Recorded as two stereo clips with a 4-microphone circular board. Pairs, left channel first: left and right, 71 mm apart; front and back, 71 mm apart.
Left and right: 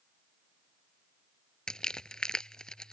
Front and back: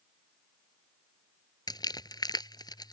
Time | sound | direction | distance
1.7 | crumpling | 10° left | ?